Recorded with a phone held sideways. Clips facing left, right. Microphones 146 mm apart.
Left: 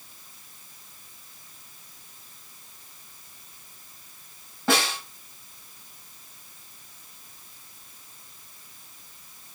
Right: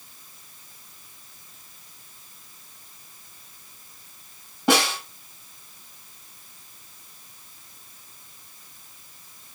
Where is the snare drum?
20° right (ahead or behind), 7.5 m.